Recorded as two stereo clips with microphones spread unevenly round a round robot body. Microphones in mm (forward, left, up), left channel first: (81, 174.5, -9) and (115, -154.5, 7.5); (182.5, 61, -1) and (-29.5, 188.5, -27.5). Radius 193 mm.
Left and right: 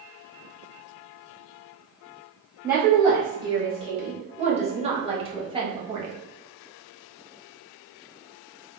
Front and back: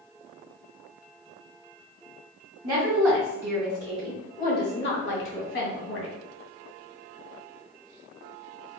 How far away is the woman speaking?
About 1.3 m.